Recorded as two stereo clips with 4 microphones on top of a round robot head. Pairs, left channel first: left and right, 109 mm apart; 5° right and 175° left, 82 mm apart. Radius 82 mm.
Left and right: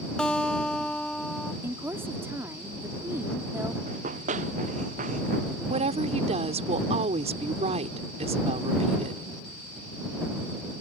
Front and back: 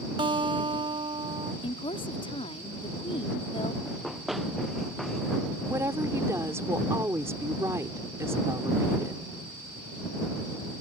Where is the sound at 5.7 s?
115° right.